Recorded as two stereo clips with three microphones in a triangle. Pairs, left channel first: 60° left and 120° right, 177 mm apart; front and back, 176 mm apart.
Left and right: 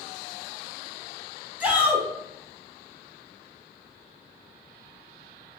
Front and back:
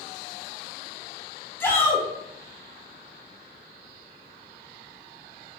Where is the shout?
50° right, 1.0 m.